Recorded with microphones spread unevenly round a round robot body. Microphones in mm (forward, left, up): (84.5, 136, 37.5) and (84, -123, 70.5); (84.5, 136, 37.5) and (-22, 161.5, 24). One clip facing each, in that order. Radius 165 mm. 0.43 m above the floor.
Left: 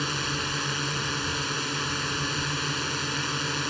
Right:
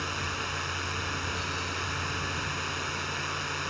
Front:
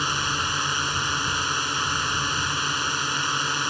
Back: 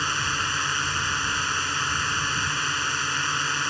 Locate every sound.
0.0 s a drone: 60° left